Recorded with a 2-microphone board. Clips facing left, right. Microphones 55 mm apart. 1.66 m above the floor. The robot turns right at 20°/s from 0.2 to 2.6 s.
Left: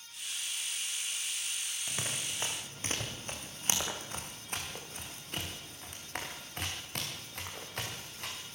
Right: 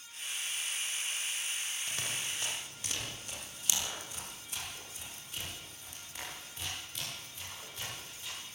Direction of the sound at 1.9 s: 15° left (ahead or behind).